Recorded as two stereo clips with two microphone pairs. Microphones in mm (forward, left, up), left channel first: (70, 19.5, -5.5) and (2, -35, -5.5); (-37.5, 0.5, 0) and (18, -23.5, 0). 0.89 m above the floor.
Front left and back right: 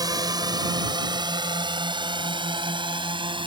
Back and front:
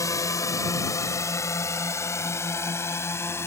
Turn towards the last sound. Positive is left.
turn(degrees=-155)